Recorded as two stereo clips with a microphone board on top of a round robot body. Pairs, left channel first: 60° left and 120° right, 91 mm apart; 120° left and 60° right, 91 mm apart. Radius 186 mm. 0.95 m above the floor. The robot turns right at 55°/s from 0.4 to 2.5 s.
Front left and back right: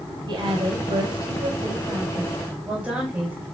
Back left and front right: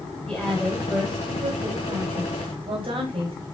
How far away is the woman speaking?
About 5 m.